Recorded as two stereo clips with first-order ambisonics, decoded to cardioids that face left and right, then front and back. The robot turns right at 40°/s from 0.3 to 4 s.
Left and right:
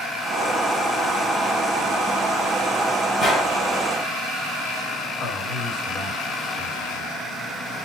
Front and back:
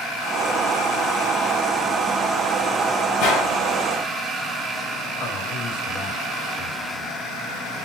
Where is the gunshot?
15° left, 3.5 m; by 3.5 s 30° left, 3.5 m.